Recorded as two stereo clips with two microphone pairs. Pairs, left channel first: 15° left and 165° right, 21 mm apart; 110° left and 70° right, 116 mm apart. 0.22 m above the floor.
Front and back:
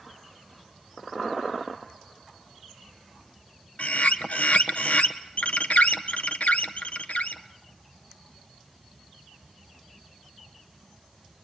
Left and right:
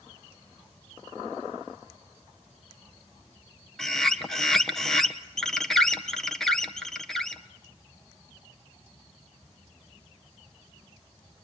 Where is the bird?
20° left, 1.3 m.